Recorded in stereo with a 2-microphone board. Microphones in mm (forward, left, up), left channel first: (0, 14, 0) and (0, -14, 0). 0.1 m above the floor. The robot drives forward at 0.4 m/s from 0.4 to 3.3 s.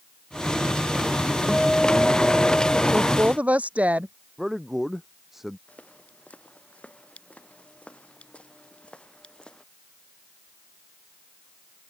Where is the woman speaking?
65° right (ahead or behind).